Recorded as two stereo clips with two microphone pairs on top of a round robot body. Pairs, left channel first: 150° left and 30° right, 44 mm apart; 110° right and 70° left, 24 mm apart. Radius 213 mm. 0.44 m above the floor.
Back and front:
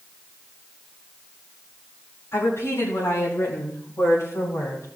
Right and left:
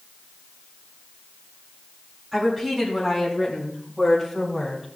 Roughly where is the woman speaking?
Behind left.